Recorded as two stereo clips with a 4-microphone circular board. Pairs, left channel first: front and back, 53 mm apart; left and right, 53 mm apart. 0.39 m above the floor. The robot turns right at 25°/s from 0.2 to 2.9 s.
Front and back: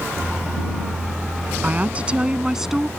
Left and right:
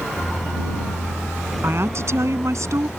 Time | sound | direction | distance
1.6 | a woman speaking | 125° right | ?